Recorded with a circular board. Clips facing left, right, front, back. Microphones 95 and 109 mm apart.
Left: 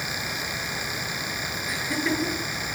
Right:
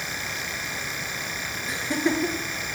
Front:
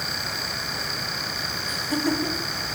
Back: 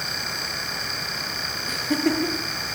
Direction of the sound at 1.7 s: 155° right.